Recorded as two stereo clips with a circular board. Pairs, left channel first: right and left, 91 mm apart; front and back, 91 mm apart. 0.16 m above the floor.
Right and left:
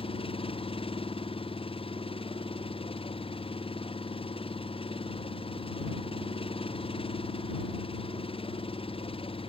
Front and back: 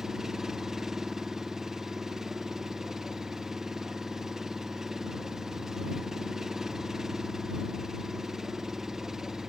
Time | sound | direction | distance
0.0 | an engine running | 95° right | ?